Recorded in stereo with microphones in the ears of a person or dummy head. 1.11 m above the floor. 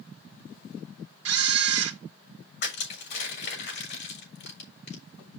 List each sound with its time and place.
1.2 s a camera shutter: 70° right (ahead or behind), 1.1 m
2.6 s crushing: 50° left (ahead or behind), 4.5 m